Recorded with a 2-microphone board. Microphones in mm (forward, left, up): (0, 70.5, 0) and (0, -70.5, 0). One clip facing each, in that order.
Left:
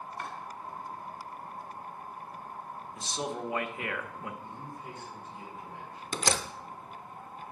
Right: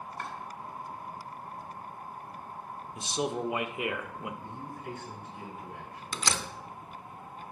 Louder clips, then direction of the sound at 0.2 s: Right 1 dB; 35° right (ahead or behind).